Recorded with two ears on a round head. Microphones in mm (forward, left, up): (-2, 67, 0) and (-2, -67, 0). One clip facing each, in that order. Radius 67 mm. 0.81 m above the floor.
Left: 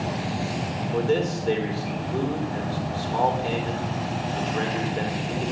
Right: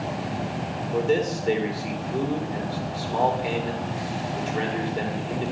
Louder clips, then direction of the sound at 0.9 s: Right 1 dB; 15° right (ahead or behind).